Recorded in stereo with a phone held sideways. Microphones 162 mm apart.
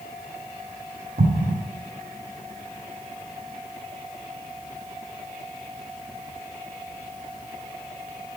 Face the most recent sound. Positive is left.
turn(degrees=-60)  # may be behind; listen again after turning